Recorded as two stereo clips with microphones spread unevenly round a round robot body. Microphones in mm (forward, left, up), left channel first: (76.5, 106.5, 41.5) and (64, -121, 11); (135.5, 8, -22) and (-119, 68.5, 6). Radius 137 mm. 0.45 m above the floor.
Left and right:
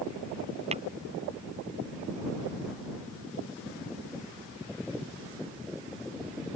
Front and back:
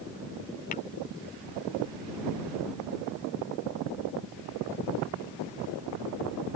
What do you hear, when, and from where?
0.7 s tapping: 55° right